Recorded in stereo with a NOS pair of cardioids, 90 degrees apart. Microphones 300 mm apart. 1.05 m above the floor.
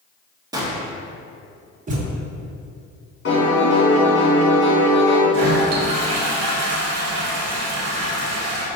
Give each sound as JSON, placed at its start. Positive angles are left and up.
{"t": 0.5, "sound": "a gunshot", "azimuth_deg": -15, "distance_m": 0.7}
{"t": 1.9, "sound": "a thud", "azimuth_deg": -25, "distance_m": 0.9}
{"t": 3.2, "sound": "a piano", "azimuth_deg": 40, "distance_m": 1.7}
{"t": 5.3, "sound": "a toilet flushing", "azimuth_deg": -55, "distance_m": 0.9}